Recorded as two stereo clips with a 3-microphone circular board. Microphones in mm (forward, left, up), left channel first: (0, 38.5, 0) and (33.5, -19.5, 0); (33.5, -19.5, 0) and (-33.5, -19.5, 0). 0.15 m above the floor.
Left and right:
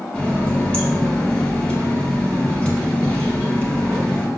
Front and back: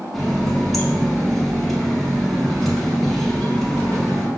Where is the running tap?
80° left, 0.8 m.